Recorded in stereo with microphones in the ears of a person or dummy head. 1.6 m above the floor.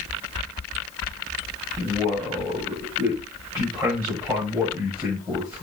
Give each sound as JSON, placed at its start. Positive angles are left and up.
{"t": 1.8, "sound": "a man speaking", "side_deg": -20, "distance_m": 7.0}